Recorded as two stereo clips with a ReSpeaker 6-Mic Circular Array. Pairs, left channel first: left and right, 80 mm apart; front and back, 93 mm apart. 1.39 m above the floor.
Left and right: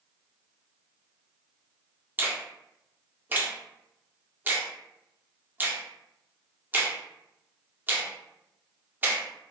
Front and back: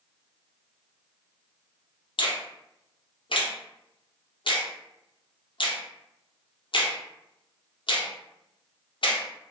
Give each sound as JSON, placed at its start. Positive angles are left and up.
{"t": 2.2, "sound": "a finger snap", "azimuth_deg": -25, "distance_m": 0.5}